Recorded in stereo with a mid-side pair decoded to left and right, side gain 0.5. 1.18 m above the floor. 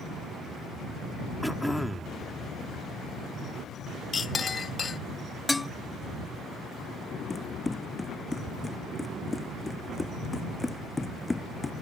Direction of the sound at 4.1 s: 35° left.